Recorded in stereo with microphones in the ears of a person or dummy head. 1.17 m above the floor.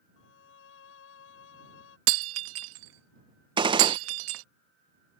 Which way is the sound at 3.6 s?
25° right (ahead or behind).